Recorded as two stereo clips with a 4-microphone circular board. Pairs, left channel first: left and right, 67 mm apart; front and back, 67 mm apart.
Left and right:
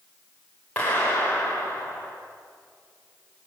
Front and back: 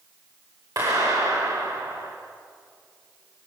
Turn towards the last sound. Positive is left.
turn(degrees=160)